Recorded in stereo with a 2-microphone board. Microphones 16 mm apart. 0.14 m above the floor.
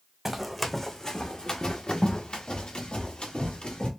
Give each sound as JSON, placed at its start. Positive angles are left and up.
{"t": 0.2, "sound": "running footsteps", "side_deg": -5, "distance_m": 0.7}